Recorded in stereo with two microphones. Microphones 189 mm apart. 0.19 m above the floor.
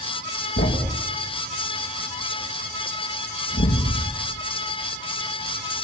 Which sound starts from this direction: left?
A thud, at 0.6 s.